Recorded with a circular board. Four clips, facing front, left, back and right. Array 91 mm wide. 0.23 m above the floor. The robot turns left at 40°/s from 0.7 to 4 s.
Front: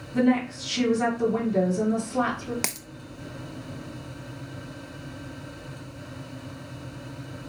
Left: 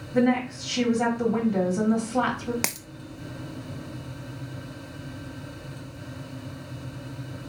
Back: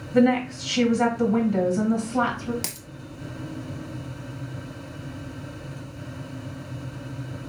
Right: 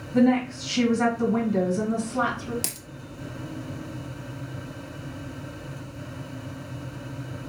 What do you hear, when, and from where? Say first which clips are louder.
0.1 s a woman speaking: right 2 dB, back 3 dB; 175° left, 2.5 m; by 2.5 s 105° left, 2.5 m
2.6 s a dropped coin: left 6 dB, front 4 dB; 65° left, 0.5 m; by 2.9 s 55° left, 0.5 m